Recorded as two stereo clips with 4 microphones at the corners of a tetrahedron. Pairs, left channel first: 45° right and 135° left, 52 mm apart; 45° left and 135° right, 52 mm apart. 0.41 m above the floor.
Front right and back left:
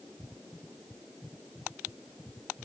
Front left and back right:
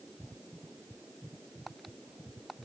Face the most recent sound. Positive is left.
No sound to turn to.